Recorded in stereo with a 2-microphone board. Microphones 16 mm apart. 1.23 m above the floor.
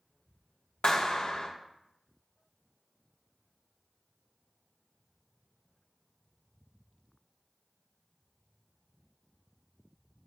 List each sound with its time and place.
0.8 s a clap: 70° left (ahead or behind), 1.3 m